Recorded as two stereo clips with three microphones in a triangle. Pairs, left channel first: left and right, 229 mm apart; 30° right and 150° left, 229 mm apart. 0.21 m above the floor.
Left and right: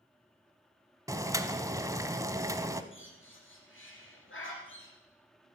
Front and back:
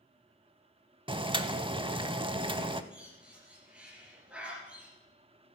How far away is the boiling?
About 0.6 m.